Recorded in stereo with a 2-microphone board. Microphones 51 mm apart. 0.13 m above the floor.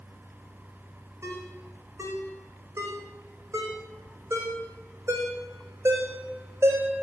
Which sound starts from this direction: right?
A ringtone, at 1.2 s.